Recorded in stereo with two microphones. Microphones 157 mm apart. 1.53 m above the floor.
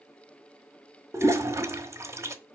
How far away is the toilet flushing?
About 1.1 m.